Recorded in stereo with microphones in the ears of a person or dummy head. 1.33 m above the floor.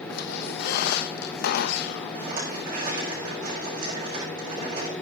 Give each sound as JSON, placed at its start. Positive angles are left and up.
{"t": 0.1, "sound": "a squeak", "side_deg": 55, "distance_m": 0.9}
{"t": 2.1, "sound": "a rattle", "side_deg": -50, "distance_m": 4.5}